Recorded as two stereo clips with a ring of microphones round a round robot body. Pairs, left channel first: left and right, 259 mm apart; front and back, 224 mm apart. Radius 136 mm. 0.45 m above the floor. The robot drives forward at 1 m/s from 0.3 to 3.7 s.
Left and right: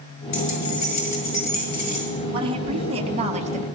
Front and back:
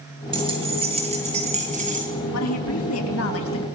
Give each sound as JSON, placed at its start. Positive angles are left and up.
{"t": 0.3, "sound": "keys jangling", "azimuth_deg": 110, "distance_m": 7.5}
{"t": 2.3, "sound": "a woman speaking", "azimuth_deg": -20, "distance_m": 4.0}